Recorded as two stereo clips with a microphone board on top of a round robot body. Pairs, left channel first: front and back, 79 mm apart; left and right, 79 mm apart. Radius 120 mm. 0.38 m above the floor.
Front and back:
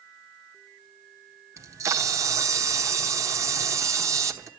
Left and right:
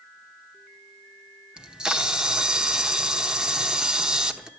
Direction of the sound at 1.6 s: 165° right.